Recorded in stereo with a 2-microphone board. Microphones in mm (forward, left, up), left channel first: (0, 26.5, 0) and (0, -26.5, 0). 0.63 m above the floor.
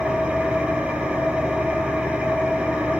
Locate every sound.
0.0 s an engine running: 20° right (ahead or behind), 5 m